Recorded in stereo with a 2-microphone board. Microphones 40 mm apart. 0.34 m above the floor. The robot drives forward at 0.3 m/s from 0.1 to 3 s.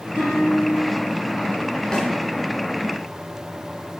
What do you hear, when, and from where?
0.2 s a guitar: 60° right (ahead or behind), 1.4 m; by 1.0 s 65° right (ahead or behind), 1.4 m
1.9 s a snare drum: 20° left (ahead or behind), 0.8 m